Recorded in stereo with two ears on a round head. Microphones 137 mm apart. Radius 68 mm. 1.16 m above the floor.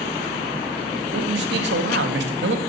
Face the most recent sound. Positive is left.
turn(degrees=-80)